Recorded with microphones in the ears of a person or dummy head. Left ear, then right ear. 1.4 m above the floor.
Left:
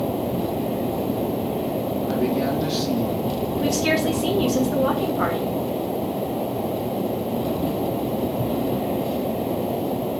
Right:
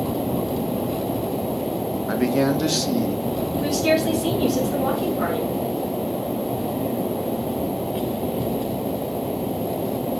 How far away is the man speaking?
About 1.0 m.